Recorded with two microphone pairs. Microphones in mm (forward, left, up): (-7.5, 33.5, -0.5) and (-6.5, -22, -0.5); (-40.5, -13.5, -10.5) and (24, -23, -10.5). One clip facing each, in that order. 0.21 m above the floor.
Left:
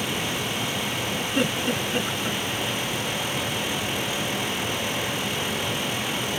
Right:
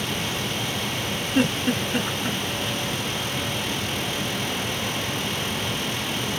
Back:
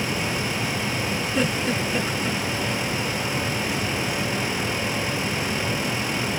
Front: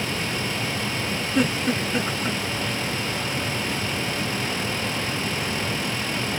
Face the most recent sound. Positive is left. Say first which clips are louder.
# right 3 dB, front 2 dB
turn(degrees=-45)